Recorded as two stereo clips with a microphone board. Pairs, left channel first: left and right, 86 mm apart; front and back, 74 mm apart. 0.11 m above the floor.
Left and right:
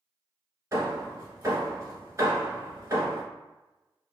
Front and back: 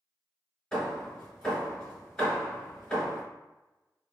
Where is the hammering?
70° right, 1.0 m.